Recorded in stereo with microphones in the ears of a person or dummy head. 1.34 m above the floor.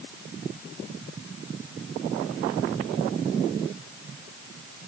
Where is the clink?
No clink in this recording.